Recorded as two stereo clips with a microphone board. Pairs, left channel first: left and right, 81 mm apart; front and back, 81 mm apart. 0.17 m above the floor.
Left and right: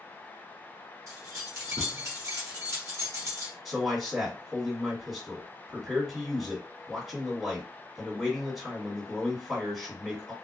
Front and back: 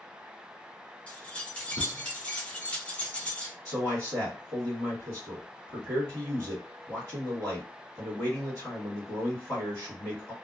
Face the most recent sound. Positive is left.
turn(degrees=-10)